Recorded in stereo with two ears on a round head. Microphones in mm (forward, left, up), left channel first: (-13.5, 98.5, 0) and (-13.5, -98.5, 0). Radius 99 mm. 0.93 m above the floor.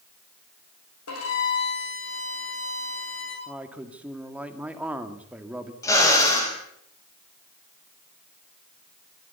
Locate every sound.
1.1 s a violin: 75° left (ahead or behind), 9 m
3.5 s a man speaking: 5° right (ahead or behind), 1.8 m
5.8 s a drill: 15° left (ahead or behind), 5.5 m